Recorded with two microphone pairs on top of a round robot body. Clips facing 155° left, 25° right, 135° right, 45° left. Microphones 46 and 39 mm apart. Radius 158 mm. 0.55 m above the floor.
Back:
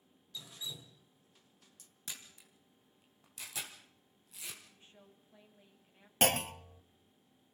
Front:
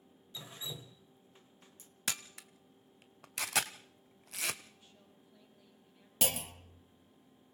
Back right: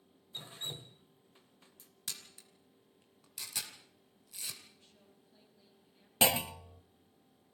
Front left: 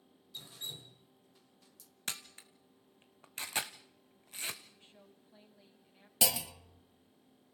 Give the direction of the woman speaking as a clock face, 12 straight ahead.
9 o'clock.